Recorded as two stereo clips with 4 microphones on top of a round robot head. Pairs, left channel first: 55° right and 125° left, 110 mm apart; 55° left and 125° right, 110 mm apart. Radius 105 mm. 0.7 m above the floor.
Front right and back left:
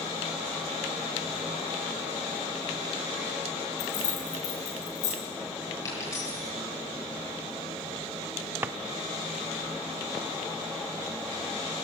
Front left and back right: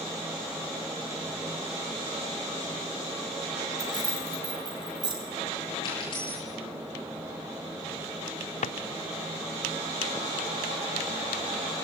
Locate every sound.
3.8 s keys jangling: 70° right, 4 m
5.8 s a dropped coin: 10° left, 8.5 m
8.6 s a drawer: 50° left, 0.6 m